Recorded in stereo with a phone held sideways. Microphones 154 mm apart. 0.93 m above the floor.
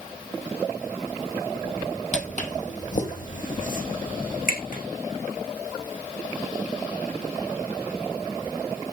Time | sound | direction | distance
2.1 | footsteps | 50° left (ahead or behind) | 1.9 m